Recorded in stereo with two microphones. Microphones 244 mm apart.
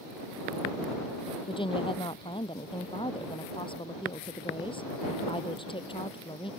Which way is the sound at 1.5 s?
20° left (ahead or behind).